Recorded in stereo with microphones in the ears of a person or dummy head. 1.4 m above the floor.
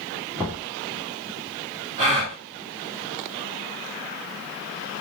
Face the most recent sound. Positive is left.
turn(degrees=-30)  # may be behind; listen again after turning